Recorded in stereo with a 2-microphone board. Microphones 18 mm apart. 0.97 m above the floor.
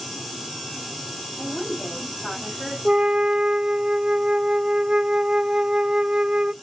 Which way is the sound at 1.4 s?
20° left (ahead or behind).